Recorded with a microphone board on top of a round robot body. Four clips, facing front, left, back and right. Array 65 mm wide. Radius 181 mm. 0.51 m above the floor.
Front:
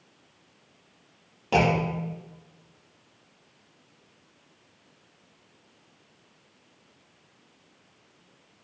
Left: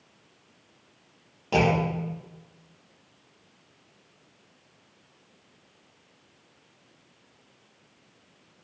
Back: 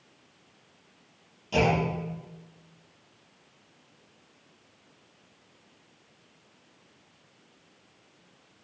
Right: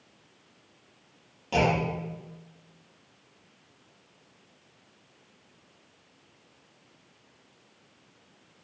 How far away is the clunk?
About 0.9 m.